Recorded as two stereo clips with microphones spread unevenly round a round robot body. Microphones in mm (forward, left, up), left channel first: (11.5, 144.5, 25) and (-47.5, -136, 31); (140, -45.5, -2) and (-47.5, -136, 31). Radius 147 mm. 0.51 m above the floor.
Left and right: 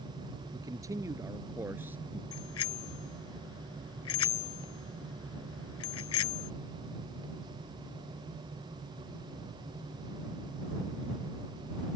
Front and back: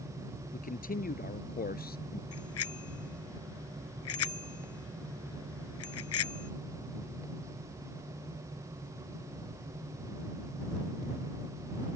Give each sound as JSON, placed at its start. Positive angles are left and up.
{"t": 0.5, "sound": "a man speaking", "azimuth_deg": -25}
{"t": 2.3, "sound": "a bicycle bell", "azimuth_deg": 35}